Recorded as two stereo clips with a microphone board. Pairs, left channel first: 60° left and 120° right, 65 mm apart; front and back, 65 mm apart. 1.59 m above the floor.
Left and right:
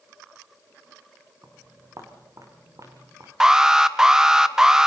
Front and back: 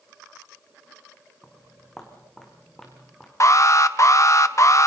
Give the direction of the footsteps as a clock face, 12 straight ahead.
3 o'clock.